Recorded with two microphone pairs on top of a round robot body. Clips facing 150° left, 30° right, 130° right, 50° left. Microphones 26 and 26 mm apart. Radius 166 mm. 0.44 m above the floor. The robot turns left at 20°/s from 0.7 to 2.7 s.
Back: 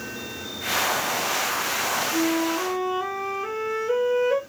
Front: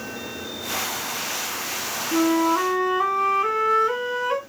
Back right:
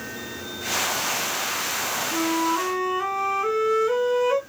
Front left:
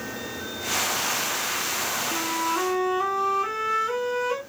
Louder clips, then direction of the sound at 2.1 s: Front 8 dB, back right 5 dB; 40° right.